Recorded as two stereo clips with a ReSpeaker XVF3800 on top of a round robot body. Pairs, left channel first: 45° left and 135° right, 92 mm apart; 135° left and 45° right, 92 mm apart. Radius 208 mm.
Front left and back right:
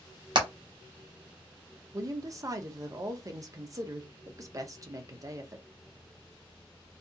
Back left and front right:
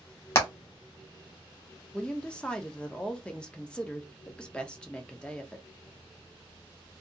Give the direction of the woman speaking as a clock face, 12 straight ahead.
5 o'clock.